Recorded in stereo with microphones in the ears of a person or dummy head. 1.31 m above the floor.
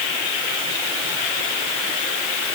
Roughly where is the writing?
I don't hear writing.